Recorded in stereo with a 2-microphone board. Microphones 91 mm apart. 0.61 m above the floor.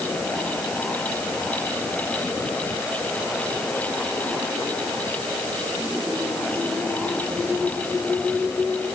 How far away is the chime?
I don't hear a chime.